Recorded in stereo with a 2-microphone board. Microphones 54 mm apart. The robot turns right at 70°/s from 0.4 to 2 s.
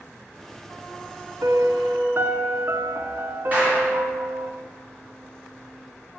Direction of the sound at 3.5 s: 35° right (ahead or behind).